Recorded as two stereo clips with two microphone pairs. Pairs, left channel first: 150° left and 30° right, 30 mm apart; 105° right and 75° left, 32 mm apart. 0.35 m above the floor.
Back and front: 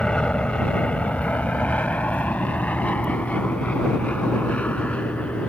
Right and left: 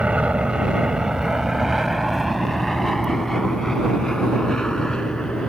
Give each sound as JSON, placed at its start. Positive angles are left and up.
{"t": 0.0, "sound": "an aircraft", "azimuth_deg": 105}